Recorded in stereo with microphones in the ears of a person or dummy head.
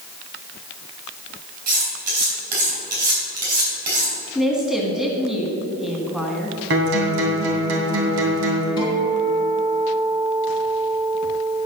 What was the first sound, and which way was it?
Cutlery clinking, 50° right (ahead or behind).